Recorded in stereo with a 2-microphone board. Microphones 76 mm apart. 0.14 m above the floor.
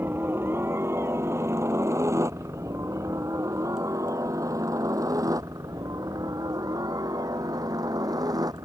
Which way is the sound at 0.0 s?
30° right (ahead or behind).